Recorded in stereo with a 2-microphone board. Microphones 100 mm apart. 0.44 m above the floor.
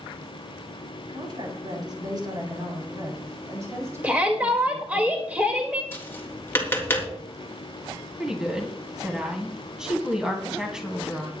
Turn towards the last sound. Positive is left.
turn(degrees=-5)  # may be behind; listen again after turning